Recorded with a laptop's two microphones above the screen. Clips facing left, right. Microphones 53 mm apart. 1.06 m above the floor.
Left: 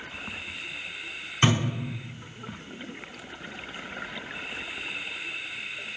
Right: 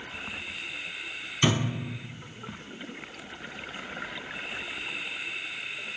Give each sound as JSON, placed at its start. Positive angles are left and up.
{"t": 1.4, "sound": "a thud", "side_deg": 40, "distance_m": 2.0}